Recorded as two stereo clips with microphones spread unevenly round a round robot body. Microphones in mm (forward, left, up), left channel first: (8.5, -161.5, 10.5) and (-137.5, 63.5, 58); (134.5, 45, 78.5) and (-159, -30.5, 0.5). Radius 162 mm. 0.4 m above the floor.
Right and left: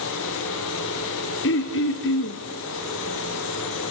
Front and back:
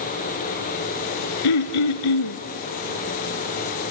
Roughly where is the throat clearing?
Ahead.